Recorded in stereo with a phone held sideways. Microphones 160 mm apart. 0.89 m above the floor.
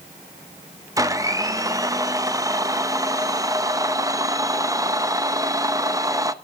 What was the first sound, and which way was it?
A blender, 20° right (ahead or behind).